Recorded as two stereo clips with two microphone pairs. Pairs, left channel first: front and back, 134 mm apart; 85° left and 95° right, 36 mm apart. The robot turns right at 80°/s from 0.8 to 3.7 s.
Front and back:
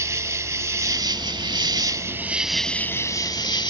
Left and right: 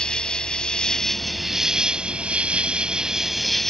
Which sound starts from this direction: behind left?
An insect, at 0.0 s.